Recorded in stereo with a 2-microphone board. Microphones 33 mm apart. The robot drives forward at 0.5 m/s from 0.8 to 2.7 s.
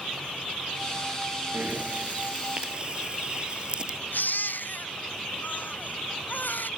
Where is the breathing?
50° right (ahead or behind); by 4.0 s 35° right (ahead or behind).